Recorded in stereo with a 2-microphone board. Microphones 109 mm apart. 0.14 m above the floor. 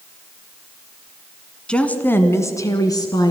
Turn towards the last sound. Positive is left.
turn(degrees=35)  # may be behind; listen again after turning